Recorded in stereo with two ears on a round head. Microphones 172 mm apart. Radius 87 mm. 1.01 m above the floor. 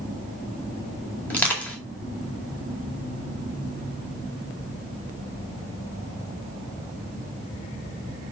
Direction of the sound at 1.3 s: 5° left (ahead or behind).